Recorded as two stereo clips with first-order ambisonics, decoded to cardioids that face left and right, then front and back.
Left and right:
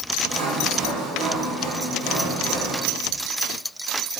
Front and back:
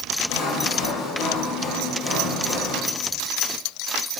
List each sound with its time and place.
0.3 s sawing: 40° right, 2 m